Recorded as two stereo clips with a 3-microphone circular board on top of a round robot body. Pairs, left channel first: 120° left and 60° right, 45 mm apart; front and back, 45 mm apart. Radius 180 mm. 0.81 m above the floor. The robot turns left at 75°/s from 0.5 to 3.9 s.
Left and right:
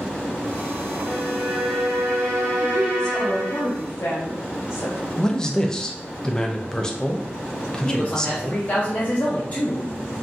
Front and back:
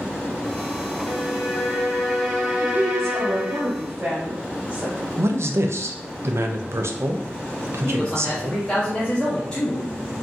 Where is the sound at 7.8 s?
75° left, 1.0 m.